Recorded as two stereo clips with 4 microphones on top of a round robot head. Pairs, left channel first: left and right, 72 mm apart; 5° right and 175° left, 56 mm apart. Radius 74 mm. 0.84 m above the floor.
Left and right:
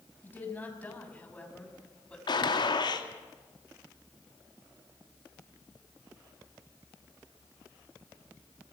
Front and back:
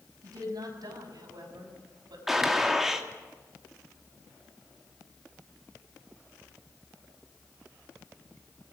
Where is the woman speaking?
160° left, 6 m; by 2.2 s 170° left, 6.5 m.